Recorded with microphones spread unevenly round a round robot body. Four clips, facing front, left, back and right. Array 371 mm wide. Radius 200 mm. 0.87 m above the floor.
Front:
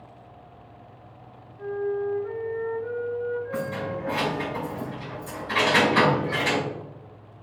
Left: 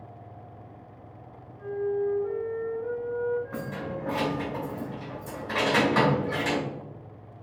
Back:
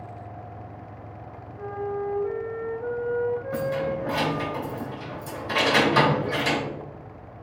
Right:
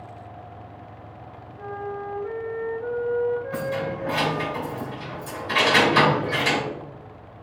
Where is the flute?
155° right, 4 m.